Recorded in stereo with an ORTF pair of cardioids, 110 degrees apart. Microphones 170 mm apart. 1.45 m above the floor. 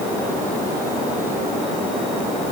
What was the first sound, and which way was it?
Only background noise.